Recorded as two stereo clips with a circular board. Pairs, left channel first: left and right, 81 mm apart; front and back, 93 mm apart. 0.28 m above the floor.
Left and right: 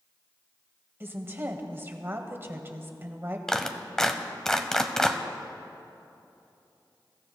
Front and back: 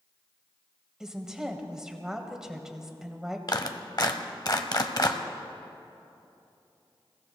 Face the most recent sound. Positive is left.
turn(degrees=10)